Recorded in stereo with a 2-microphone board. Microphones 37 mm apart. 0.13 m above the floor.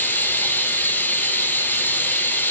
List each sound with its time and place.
0.0 s running water: 60° left (ahead or behind), 0.9 m